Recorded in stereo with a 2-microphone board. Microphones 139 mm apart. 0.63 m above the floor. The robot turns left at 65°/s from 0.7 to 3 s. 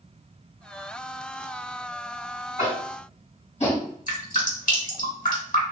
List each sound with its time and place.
2.6 s tapping: 75° left (ahead or behind), 2.0 m; by 3.9 s 50° left (ahead or behind), 2.0 m
4.1 s dripping: 70° left (ahead or behind), 1.3 m